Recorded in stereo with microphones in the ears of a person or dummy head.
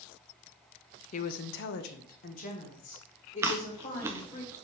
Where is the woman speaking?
40° left (ahead or behind), 0.6 m; by 4.4 s 35° left (ahead or behind), 2.5 m.